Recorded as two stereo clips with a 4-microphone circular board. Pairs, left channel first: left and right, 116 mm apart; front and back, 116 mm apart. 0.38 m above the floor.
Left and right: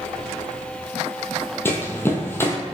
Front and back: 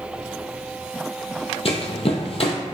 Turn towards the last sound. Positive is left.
turn(degrees=25)